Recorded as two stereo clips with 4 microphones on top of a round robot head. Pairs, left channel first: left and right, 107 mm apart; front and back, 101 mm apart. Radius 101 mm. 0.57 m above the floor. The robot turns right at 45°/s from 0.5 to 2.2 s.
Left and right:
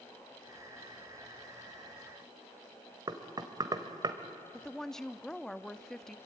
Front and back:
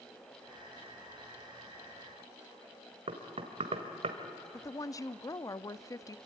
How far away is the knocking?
About 1.8 m.